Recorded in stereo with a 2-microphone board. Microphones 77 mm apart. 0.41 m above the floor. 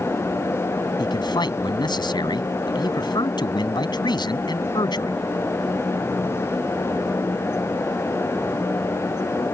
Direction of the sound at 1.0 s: 70° left (ahead or behind).